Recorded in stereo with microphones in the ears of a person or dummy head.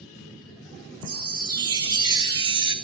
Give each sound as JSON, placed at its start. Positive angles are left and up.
{"t": 1.0, "sound": "a chime", "side_deg": -25, "distance_m": 0.8}